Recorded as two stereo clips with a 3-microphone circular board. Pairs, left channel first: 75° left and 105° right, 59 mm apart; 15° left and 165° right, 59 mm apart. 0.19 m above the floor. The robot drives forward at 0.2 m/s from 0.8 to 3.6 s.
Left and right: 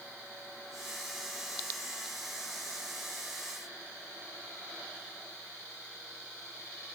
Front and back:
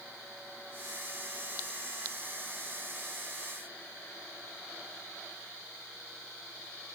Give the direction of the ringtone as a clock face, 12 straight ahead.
I don't hear a ringtone.